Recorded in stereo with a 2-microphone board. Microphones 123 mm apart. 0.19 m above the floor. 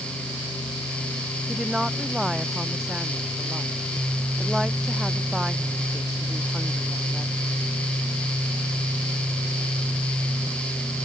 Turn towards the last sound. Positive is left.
turn(degrees=-5)  # may be behind; listen again after turning